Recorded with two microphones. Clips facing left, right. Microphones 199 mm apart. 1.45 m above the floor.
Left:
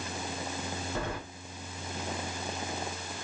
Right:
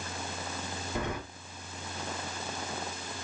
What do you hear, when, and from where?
0.9 s keys jangling: 15° right (ahead or behind), 3 m